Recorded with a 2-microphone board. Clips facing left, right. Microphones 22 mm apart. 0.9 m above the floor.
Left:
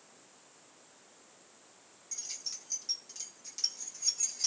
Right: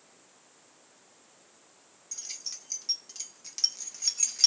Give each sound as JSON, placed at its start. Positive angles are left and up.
{"t": 2.1, "sound": "keys jangling", "side_deg": -25, "distance_m": 1.7}